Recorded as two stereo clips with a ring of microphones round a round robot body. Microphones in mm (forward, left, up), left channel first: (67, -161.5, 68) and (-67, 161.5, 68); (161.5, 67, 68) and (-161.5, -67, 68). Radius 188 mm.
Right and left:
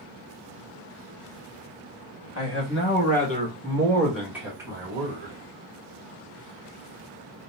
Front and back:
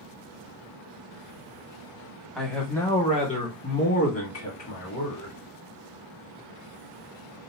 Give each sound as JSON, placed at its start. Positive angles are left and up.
{"t": 2.4, "sound": "a man speaking", "azimuth_deg": -70, "distance_m": 1.2}